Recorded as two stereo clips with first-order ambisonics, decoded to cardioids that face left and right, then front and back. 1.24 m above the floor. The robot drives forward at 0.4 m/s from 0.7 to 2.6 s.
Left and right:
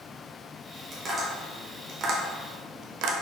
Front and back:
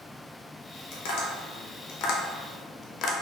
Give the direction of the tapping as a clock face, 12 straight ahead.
1 o'clock.